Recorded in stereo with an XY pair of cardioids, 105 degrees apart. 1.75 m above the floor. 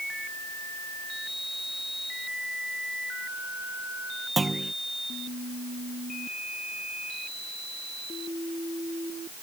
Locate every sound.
4.4 s a clunk: 25° right